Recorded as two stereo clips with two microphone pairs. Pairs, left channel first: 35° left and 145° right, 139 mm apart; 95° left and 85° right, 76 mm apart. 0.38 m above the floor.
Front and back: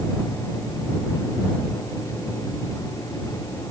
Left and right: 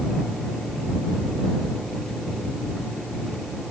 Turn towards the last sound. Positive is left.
No sound to turn to.